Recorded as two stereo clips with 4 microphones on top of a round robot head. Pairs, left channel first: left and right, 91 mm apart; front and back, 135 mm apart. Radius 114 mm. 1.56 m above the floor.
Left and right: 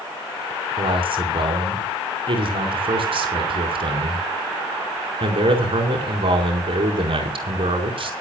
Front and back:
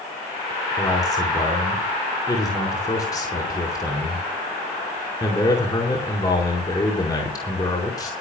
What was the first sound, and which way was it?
A man speaking, 65° right.